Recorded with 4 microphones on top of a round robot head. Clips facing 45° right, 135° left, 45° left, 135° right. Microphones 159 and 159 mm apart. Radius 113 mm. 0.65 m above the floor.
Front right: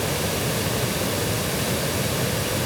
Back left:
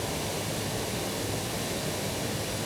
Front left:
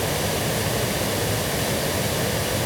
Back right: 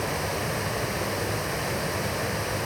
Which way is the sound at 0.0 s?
15° right.